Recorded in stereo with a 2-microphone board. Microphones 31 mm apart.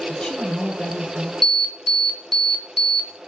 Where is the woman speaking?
30° left (ahead or behind), 1.8 m.